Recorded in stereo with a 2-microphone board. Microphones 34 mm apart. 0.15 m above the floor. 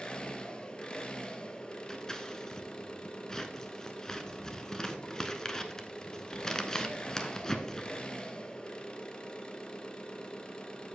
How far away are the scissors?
About 0.8 m.